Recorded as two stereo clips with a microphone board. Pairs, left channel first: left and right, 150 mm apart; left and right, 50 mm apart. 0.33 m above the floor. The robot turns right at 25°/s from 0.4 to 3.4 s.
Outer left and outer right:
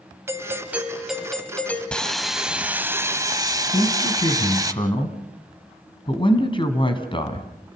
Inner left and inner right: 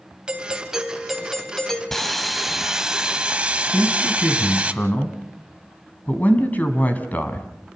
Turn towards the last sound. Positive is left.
turn(degrees=35)  # may be behind; listen again after turning